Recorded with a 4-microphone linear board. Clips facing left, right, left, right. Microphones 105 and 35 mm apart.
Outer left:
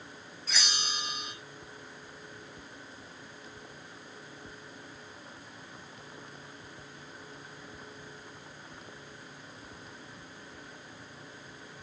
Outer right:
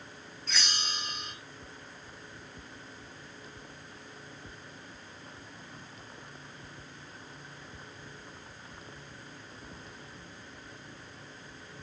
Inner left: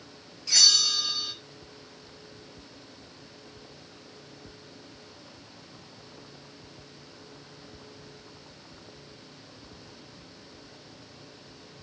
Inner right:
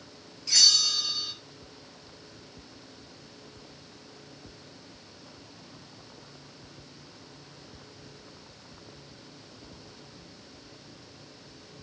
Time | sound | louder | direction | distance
0.5 | a bell | even, inner left 1 dB | 5° left (ahead or behind) | 2.5 m